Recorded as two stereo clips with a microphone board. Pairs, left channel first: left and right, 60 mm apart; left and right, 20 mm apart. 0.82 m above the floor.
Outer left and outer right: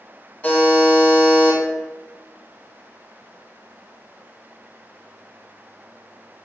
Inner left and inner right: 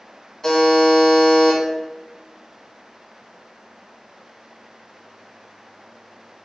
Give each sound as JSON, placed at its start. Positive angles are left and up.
{"t": 0.4, "sound": "a buzzer", "side_deg": 30, "distance_m": 1.1}